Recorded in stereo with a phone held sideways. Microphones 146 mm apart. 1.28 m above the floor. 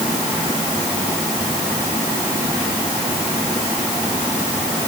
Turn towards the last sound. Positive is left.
No sound to turn to.